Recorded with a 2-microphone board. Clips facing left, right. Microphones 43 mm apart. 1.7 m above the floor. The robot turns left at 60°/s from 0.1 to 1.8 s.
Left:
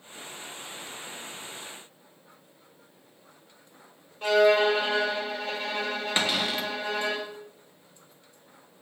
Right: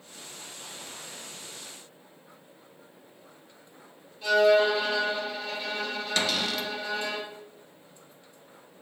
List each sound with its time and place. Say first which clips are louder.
4.2 s a violin: even; 60° left (ahead or behind), 2.5 m
6.2 s a cupboard door: left 1 dB; 25° left (ahead or behind), 0.8 m